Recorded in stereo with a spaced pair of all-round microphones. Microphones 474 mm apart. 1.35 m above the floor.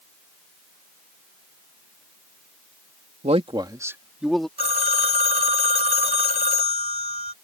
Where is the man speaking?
15° right (ahead or behind); by 4.5 s centre (ahead or behind).